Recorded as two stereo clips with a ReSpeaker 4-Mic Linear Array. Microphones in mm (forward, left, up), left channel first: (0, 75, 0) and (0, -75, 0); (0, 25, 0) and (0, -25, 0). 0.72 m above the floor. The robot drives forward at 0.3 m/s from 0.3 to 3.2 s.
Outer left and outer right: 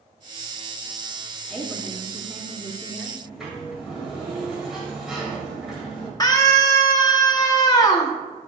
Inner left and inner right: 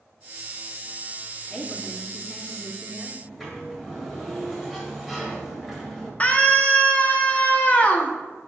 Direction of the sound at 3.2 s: Centre (ahead or behind).